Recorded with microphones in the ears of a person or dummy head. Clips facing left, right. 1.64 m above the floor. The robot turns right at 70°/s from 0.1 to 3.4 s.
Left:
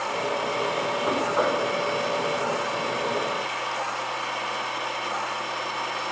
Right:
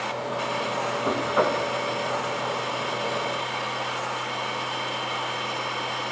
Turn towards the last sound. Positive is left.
turn(degrees=20)